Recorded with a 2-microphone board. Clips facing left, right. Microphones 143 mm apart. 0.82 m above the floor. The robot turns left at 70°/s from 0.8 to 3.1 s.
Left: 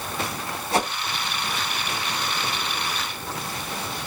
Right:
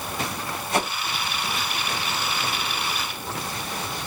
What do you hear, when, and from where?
0.7 s a whoosh: 30° left (ahead or behind), 1.1 m; by 0.9 s 35° left (ahead or behind), 1.1 m